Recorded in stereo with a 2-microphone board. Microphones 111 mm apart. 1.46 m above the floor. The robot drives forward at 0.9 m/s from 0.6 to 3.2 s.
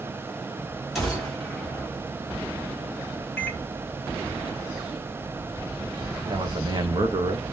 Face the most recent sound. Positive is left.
turn(degrees=-45)  # may be behind; listen again after turning